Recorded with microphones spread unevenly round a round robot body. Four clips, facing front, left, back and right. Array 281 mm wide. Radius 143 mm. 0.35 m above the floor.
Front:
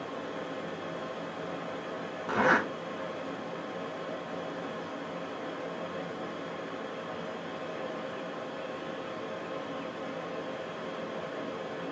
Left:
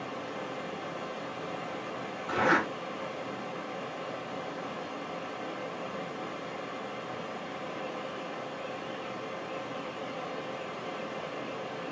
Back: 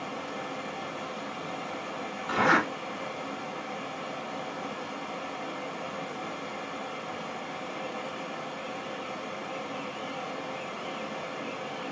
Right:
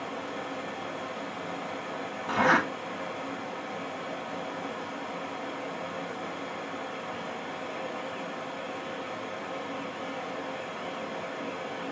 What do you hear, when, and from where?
0.0 s running water: 25° right, 1.5 m
2.3 s a zipper: 25° right, 1.1 m